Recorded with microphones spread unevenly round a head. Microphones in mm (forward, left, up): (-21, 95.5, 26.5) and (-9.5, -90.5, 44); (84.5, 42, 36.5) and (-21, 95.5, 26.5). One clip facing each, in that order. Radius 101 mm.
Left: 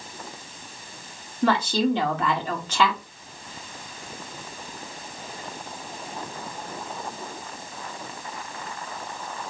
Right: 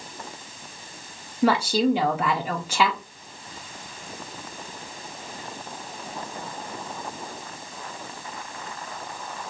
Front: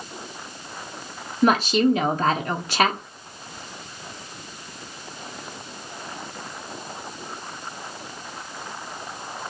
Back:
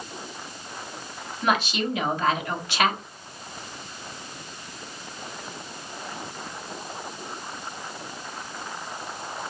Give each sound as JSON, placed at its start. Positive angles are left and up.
{"t": 1.4, "sound": "a woman speaking", "azimuth_deg": -15, "distance_m": 0.5}